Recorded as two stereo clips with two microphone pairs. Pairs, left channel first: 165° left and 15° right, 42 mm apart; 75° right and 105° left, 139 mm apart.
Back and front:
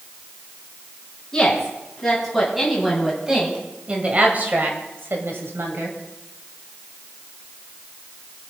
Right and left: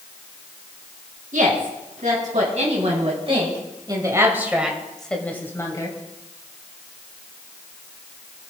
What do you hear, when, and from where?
1.3 s a woman speaking: 85° left, 4 m; by 6.0 s 10° right, 2.5 m